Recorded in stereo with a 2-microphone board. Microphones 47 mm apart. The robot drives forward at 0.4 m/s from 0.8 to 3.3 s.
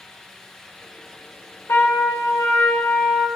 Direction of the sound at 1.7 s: 70° left (ahead or behind).